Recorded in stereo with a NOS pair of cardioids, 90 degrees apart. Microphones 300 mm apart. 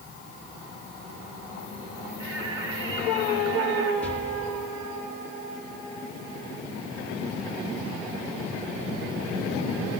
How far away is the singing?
About 8 m.